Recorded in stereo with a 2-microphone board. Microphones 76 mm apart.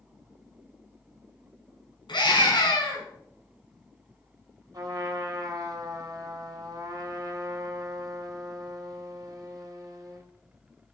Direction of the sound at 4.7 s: 50° right (ahead or behind).